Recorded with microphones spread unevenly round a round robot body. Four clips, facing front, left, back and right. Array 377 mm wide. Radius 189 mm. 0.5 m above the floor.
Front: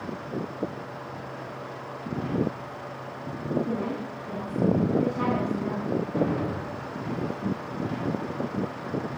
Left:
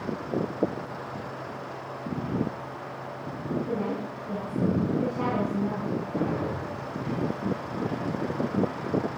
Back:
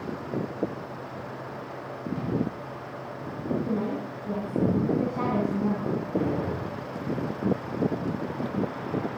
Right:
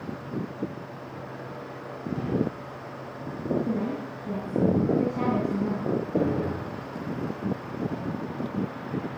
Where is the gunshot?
95° right, 5.5 m.